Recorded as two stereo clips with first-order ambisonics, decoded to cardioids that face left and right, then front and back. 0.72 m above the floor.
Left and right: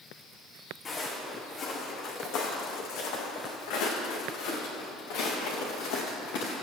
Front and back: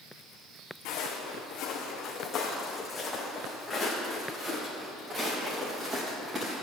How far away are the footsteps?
About 3 m.